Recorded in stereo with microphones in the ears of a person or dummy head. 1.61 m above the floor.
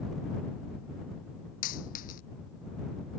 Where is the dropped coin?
45° left (ahead or behind).